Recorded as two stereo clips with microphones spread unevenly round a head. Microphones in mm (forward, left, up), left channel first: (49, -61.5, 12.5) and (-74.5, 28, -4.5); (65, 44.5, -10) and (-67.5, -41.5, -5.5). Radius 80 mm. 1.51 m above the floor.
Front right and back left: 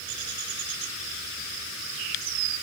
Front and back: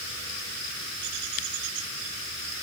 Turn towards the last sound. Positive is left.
No sound to turn to.